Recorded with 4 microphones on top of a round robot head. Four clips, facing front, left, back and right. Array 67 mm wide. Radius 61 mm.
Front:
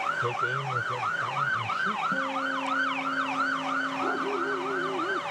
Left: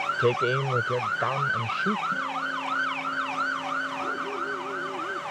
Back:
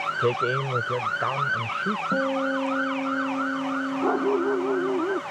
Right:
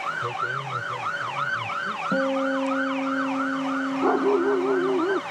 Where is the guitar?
120° right.